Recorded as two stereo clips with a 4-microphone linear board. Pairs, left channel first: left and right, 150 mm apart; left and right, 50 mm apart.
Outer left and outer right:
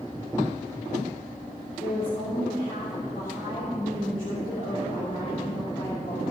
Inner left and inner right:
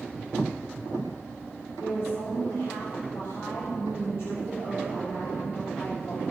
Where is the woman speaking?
65° left (ahead or behind), 3.5 m.